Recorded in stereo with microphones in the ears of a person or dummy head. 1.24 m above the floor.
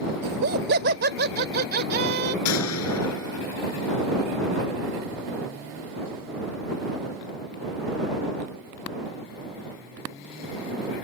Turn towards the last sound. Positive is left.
turn(degrees=85)